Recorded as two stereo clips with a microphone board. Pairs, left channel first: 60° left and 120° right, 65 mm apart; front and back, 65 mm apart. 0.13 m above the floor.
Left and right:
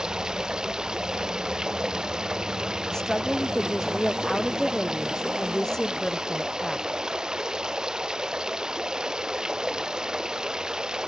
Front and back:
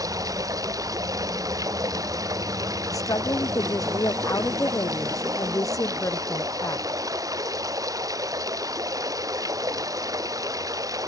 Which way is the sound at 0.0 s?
160° left.